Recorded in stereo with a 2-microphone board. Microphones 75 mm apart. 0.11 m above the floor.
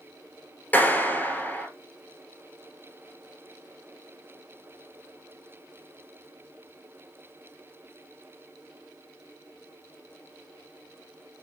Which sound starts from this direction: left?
A clap, at 0.7 s.